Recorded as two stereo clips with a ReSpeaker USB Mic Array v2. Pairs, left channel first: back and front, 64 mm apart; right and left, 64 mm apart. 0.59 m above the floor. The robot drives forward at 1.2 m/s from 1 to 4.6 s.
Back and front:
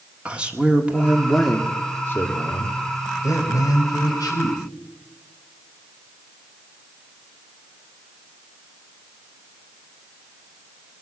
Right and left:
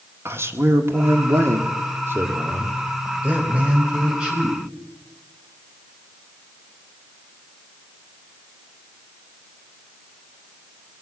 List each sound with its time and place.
0.2 s a man speaking: 65° left, 1.6 m; by 4.6 s 165° left, 4 m